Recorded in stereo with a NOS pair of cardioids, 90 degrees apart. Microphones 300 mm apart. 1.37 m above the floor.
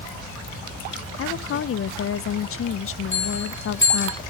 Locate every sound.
1.2 s a woman speaking: 45° left, 0.8 m
3.1 s a bell: 40° left, 5.5 m